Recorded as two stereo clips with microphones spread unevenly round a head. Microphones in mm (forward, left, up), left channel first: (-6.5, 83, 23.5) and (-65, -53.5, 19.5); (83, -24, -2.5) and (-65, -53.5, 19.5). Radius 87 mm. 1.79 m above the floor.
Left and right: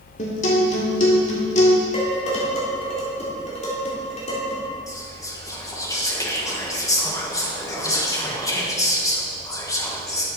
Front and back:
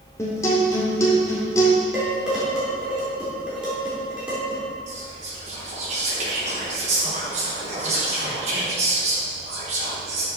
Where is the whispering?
135° left, 2.5 m.